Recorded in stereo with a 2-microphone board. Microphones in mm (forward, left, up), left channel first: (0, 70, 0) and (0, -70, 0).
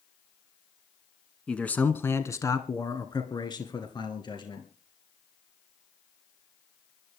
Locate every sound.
1.5 s a man speaking: 5° left (ahead or behind), 1.5 m; by 4.7 s 35° left (ahead or behind), 2.5 m